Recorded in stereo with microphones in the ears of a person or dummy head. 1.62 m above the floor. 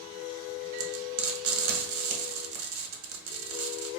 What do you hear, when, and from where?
0.8 s frying: 75° right (ahead or behind), 0.8 m